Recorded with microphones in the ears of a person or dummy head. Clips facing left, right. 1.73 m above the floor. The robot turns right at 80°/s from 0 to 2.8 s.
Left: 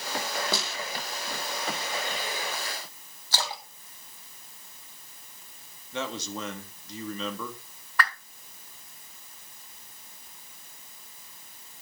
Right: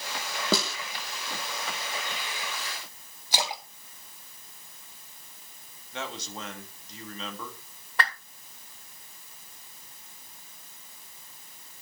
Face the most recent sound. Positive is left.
turn(degrees=-20)  # may be behind; listen again after turning